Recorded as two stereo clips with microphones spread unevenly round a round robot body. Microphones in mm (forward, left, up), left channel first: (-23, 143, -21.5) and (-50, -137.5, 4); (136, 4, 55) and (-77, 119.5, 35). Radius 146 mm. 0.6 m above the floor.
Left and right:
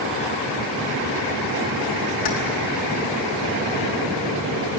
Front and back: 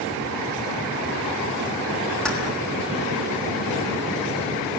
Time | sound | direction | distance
2.2 | keys jangling | 60° left | 5 m